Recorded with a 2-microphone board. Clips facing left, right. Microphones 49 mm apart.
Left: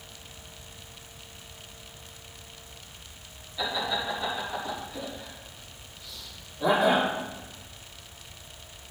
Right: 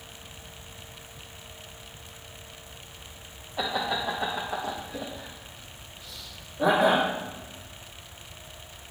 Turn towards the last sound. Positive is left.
turn(degrees=-65)  # may be behind; listen again after turning